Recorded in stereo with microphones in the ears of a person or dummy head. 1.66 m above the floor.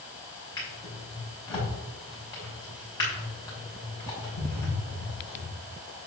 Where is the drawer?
25° left (ahead or behind), 5 m.